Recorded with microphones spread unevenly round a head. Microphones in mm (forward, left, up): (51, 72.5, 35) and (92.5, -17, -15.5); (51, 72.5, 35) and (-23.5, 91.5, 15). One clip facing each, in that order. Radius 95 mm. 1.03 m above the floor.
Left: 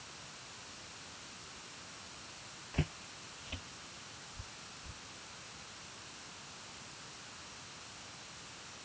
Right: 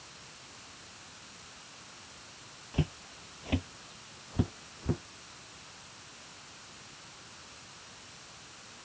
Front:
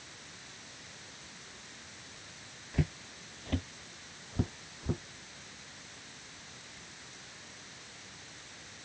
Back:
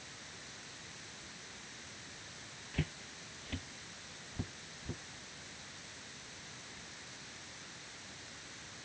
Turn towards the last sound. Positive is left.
turn(degrees=-70)